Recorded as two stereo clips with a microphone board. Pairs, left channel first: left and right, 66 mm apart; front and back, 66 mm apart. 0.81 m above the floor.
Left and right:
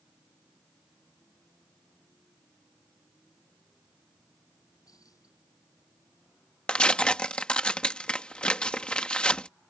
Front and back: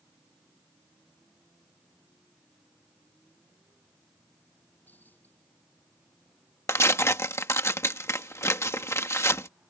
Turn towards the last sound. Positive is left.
turn(degrees=20)